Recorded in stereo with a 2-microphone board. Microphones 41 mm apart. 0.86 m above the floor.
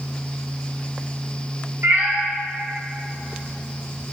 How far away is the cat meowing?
About 0.8 m.